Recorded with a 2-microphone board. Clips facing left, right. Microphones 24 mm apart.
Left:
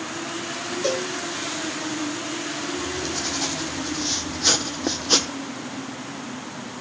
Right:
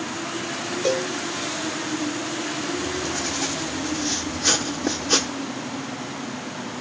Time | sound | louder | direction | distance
0.8 | a cowbell | right 2 dB | 45° left (ahead or behind) | 4 m
2.8 | writing | right 1 dB | 20° left (ahead or behind) | 1.4 m